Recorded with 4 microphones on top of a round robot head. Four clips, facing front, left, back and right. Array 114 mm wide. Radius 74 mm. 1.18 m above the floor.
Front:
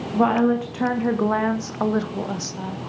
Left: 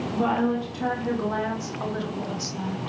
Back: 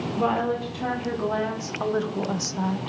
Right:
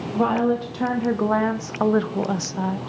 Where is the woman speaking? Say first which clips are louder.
Right 4 dB, front 6 dB; 30° right, 2 m; by 2.8 s 115° right, 1.0 m.